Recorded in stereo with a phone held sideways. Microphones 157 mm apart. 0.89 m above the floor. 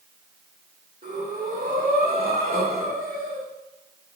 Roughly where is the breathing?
Right.